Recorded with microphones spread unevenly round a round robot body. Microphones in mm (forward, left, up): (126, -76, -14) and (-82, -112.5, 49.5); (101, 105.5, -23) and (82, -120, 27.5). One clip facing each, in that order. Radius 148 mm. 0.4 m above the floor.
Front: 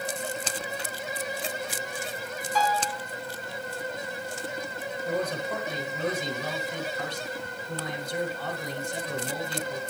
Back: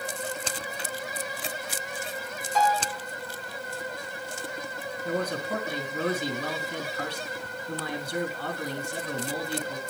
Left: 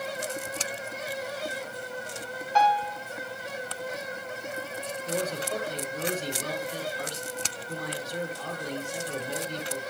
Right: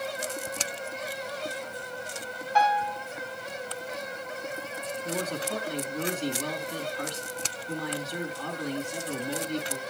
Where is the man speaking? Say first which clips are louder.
Even, left 1 dB; 140° right, 4 m.